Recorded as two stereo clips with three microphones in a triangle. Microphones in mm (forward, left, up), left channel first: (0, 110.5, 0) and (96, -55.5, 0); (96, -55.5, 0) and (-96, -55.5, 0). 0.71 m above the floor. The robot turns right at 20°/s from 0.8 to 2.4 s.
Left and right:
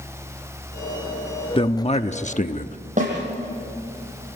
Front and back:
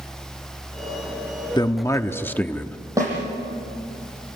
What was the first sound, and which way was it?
A man speaking, 65° left.